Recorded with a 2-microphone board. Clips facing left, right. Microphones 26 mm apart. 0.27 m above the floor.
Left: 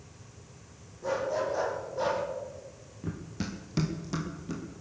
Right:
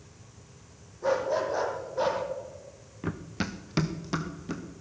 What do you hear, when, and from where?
1.0 s a dog barking: 40° right (ahead or behind), 4 m; by 2.2 s 15° right (ahead or behind), 3 m
3.0 s running footsteps: 50° right (ahead or behind), 1.4 m; by 4.6 s 25° right (ahead or behind), 3 m